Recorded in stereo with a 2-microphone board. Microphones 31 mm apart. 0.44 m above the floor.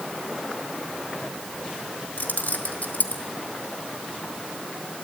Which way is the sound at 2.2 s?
60° left (ahead or behind).